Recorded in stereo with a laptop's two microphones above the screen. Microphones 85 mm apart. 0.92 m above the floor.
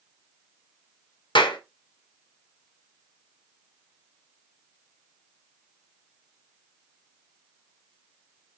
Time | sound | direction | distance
1.4 | a clap | 70° left (ahead or behind) | 2 m